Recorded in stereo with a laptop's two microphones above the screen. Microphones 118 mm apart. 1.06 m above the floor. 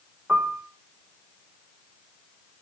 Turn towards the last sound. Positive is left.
turn(degrees=-10)  # may be behind; listen again after turning